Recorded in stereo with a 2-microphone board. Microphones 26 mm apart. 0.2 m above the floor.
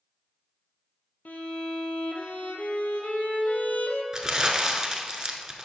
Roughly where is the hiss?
No hiss in this recording.